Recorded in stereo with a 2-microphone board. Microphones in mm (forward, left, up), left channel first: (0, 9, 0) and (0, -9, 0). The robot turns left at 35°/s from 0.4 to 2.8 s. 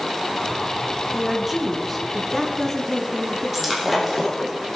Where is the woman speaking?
155° right, 2 m; by 4.5 s 150° left, 2 m.